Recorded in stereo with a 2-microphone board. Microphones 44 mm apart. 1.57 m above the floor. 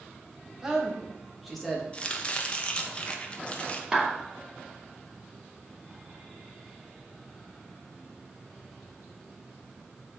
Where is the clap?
15° right (ahead or behind), 2.5 m.